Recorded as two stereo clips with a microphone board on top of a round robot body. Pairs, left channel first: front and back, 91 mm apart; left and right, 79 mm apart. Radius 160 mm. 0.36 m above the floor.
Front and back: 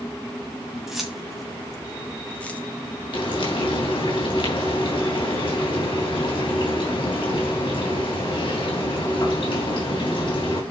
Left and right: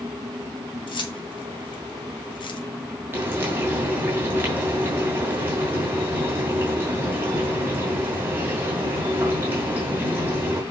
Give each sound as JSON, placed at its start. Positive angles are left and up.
{"t": 0.9, "sound": "keys jangling", "azimuth_deg": 95, "distance_m": 2.0}
{"t": 3.1, "sound": "frying", "azimuth_deg": -25, "distance_m": 3.0}